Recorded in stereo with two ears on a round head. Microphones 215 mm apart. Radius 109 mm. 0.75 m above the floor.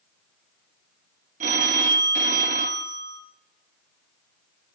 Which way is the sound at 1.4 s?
30° right (ahead or behind).